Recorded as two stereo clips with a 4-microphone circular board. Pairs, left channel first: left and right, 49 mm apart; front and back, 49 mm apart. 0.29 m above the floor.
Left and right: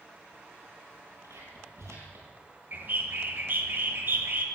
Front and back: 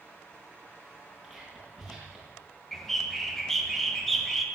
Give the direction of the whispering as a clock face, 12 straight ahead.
3 o'clock.